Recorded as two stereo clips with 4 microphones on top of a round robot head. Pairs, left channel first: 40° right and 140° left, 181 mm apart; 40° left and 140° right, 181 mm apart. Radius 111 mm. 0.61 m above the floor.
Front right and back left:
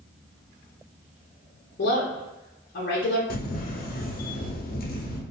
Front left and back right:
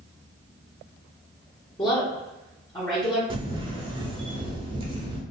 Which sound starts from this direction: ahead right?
A woman speaking, at 1.8 s.